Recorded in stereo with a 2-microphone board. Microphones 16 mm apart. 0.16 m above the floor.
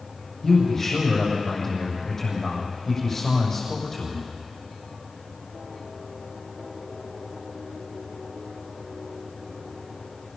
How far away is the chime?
I don't hear a chime.